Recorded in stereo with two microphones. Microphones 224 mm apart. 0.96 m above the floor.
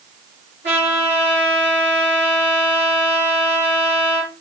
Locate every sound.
0.6 s a trumpet: 55° right (ahead or behind), 3 m